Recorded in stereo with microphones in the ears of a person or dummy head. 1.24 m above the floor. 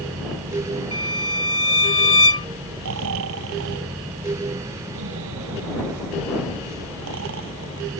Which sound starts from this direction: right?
Snoring, at 2.8 s.